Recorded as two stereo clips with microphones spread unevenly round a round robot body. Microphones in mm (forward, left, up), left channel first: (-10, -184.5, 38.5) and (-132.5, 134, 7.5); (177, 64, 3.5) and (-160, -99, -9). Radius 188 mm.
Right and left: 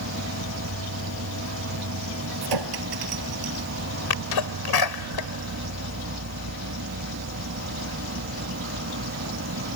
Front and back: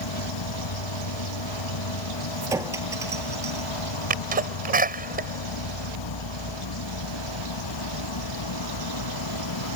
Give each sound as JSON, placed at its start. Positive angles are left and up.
{"t": 0.0, "sound": "an insect", "azimuth_deg": 55}
{"t": 2.4, "sound": "a clink", "azimuth_deg": 125}
{"t": 4.1, "sound": "a sneeze", "azimuth_deg": -85}